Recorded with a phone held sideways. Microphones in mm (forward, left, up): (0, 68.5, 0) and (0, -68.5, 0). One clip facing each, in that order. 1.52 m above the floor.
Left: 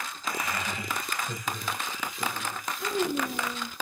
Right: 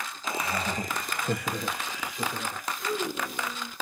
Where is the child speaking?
60° left (ahead or behind), 1.6 m.